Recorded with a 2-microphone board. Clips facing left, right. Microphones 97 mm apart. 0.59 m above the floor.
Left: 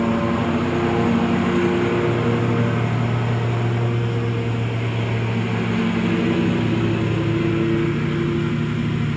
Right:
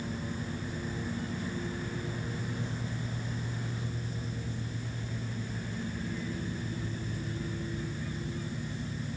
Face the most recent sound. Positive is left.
turn(degrees=85)